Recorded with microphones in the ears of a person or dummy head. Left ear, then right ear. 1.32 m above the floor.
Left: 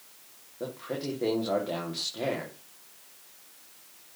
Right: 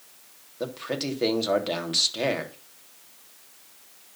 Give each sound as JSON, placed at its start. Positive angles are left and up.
{"t": 0.6, "sound": "a man speaking", "side_deg": -75, "distance_m": 3.0}